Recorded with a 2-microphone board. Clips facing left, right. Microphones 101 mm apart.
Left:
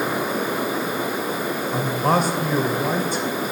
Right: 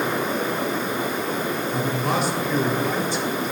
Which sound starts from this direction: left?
A man speaking, at 1.7 s.